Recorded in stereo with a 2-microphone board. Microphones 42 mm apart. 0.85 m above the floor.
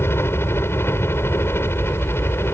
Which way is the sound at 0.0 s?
65° left (ahead or behind).